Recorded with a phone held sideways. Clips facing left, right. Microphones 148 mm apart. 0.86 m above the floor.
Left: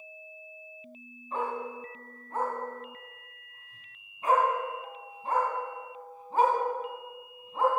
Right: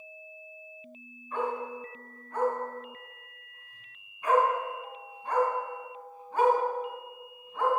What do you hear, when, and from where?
1.3 s a dog barking: 25° left (ahead or behind), 2.5 m